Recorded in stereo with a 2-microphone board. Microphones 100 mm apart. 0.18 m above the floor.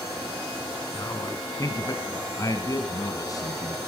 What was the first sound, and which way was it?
A man speaking, 35° left (ahead or behind).